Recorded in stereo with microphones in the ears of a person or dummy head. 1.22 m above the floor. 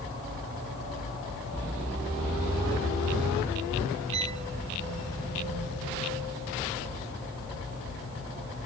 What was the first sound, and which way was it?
A violin, 30° right (ahead or behind).